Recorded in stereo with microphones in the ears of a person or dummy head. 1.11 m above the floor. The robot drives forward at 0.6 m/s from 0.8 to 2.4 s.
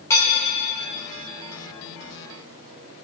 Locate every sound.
0.1 s dishes clattering: 15° left (ahead or behind), 2.5 m